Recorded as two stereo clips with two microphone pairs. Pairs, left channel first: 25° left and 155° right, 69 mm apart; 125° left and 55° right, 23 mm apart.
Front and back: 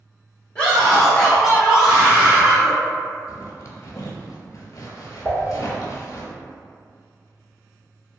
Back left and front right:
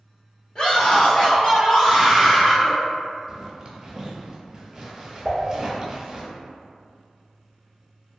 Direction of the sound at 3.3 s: 5° left.